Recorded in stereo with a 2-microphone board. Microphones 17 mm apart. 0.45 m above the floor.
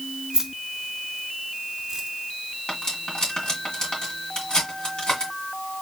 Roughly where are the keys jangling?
Right.